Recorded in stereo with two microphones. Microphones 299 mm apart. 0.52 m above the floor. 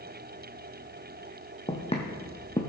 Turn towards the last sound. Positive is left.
turn(degrees=20)  # may be behind; listen again after turning